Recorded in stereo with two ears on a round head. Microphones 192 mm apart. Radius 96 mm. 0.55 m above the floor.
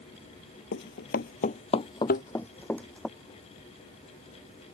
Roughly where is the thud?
Left.